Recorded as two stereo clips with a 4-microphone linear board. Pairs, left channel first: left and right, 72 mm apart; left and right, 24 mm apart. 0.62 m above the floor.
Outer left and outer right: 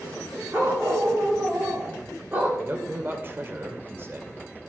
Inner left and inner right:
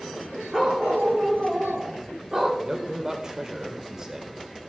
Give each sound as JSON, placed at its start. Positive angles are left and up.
{"t": 0.5, "sound": "a dog barking", "side_deg": -30, "distance_m": 9.5}
{"t": 2.6, "sound": "a man speaking", "side_deg": -35, "distance_m": 2.5}